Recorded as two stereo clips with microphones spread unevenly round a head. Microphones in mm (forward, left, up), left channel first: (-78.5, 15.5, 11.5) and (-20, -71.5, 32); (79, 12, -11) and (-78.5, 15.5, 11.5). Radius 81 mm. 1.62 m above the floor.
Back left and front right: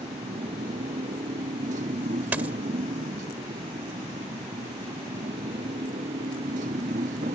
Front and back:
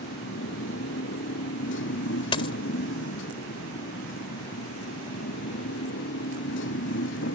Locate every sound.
0.0 s a motorcycle: 15° right
2.3 s a dropped coin: 35° right